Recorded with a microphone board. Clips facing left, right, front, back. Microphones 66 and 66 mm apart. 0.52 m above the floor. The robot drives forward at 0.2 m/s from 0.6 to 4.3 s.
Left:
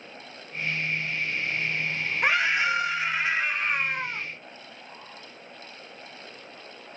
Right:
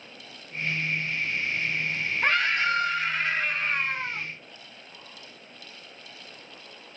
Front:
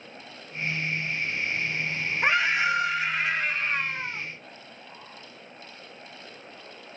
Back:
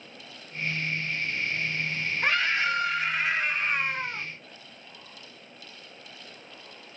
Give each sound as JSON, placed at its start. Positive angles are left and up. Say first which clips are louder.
{"t": 2.2, "sound": "a scream", "louder": "left 1 dB, front 3 dB", "azimuth_deg": 30, "distance_m": 0.6}